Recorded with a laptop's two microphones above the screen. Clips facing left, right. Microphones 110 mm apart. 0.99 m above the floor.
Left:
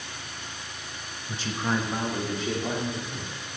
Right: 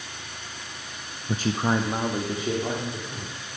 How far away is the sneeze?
I don't hear a sneeze.